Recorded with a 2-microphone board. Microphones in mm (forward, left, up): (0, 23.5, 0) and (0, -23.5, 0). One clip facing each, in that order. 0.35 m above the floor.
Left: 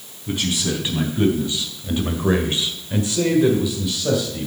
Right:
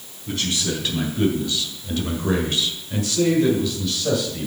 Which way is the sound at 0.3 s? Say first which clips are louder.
Left 2 dB; 20° left (ahead or behind).